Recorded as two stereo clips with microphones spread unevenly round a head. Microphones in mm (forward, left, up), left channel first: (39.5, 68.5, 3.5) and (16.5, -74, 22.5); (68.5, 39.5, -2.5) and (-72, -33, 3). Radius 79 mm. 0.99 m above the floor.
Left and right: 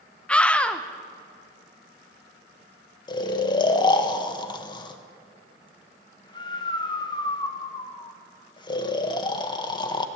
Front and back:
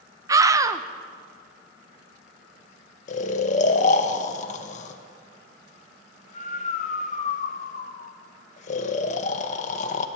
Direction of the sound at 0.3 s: 145° left.